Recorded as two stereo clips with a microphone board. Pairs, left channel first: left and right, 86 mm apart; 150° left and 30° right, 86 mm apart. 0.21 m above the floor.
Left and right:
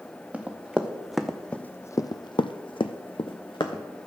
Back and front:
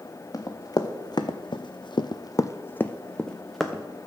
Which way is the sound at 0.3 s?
165° right.